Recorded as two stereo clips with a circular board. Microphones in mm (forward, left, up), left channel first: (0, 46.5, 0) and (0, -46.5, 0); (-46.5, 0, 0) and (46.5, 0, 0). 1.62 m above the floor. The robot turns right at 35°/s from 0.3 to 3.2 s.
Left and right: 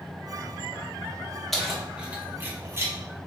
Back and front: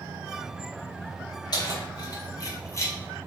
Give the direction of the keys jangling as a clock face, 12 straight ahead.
6 o'clock.